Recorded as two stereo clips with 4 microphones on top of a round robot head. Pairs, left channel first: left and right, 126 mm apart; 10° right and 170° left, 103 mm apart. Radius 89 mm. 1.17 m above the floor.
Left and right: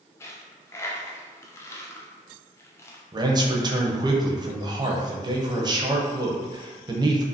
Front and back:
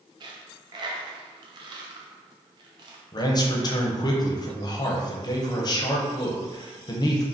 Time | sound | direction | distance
0.2 | a dropped coin | 150° left | 0.5 m
3.1 | a man speaking | 45° right | 0.8 m